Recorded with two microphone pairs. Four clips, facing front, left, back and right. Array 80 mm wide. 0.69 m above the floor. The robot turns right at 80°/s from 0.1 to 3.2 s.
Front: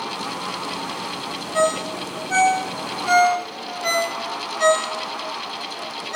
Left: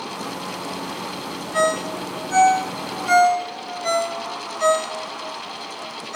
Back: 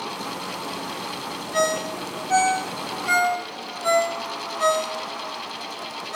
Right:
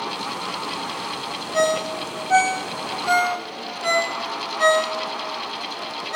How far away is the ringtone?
About 1.8 m.